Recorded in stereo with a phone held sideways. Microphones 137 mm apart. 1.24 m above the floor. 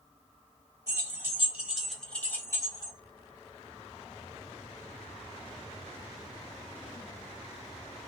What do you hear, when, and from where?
0.9 s keys jangling: 25° right (ahead or behind), 1.2 m; by 2.9 s 35° left (ahead or behind), 1.0 m